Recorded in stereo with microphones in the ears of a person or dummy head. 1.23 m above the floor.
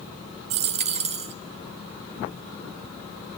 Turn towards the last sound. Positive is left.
turn(degrees=-35)  # may be behind; listen again after turning